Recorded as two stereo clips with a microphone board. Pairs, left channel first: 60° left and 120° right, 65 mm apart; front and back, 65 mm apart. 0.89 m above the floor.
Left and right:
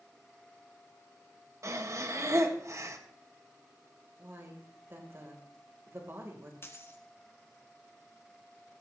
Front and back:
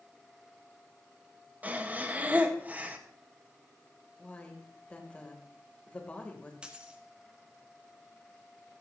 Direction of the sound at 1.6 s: 125° right.